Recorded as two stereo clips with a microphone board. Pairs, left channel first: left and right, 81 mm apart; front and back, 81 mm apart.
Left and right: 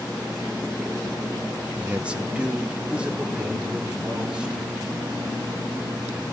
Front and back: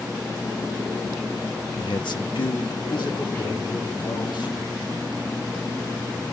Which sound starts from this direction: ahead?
A man speaking, at 1.8 s.